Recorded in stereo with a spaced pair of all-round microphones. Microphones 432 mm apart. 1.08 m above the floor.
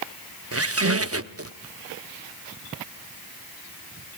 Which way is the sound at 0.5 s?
35° right (ahead or behind).